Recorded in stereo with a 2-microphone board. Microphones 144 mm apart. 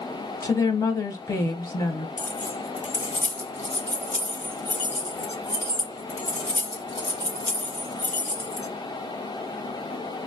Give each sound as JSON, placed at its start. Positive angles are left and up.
{"t": 0.4, "sound": "a woman speaking", "side_deg": 25, "distance_m": 1.0}
{"t": 2.2, "sound": "keys jangling", "side_deg": 55, "distance_m": 1.2}